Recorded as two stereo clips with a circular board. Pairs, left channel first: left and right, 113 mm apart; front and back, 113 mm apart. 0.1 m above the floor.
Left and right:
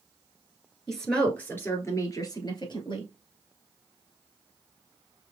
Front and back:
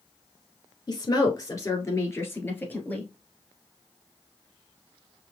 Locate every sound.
0.9 s a woman speaking: 5° left, 1.4 m; by 3.1 s 70° left, 1.8 m